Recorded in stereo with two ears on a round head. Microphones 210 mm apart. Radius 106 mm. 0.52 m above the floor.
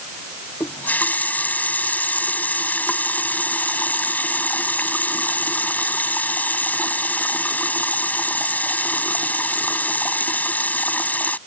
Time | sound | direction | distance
0.6 | a running tap | 5° left (ahead or behind) | ?